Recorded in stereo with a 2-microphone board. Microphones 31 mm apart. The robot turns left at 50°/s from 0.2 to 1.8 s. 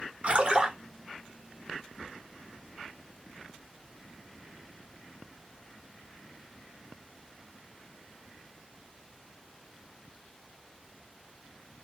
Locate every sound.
0.2 s a splash: 45° right (ahead or behind), 1.4 m; by 0.8 s 25° right (ahead or behind), 1.4 m